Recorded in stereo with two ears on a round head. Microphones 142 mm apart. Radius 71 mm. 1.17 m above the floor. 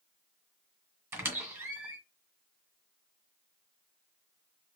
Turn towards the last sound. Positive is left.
turn(degrees=-20)  # may be behind; listen again after turning